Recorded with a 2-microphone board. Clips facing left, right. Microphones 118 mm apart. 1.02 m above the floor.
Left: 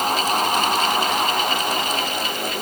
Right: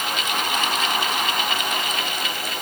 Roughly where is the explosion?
No explosion in this recording.